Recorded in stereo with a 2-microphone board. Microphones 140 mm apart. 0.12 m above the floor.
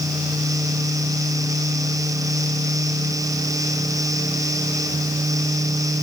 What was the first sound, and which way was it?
Only background noise.